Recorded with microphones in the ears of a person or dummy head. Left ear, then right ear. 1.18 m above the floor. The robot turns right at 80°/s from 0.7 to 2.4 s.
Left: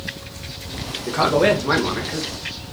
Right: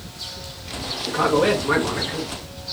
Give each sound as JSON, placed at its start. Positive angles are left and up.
{"t": 1.1, "sound": "a man speaking", "azimuth_deg": 80, "distance_m": 1.9}